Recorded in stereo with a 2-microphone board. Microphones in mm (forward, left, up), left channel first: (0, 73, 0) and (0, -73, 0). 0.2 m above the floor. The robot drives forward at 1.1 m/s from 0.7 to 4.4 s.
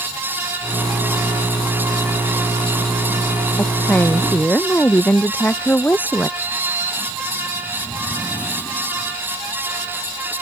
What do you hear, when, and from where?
3.6 s a woman speaking: 15° left (ahead or behind); by 6.3 s 10° left (ahead or behind)
6.4 s a sliding door: 15° left (ahead or behind)